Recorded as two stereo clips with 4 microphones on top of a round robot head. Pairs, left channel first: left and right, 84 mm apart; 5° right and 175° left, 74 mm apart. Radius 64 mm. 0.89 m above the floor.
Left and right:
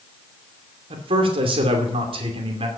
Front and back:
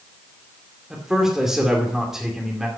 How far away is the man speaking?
About 2.5 m.